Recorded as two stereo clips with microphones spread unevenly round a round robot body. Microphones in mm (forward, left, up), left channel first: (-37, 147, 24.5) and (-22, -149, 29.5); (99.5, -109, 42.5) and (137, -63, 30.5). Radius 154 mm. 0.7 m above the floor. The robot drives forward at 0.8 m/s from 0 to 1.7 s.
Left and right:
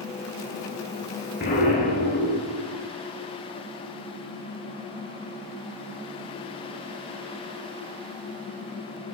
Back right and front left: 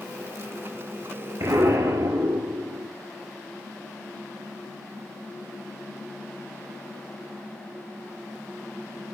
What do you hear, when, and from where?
1.4 s an explosion: 35° left, 5.5 m